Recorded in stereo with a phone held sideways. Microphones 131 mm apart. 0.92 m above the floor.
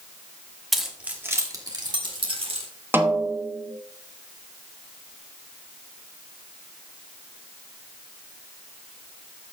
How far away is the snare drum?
About 0.9 m.